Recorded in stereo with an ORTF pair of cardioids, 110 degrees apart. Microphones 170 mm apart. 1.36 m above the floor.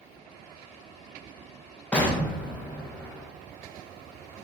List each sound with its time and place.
1.9 s an explosion: 10° left, 0.8 m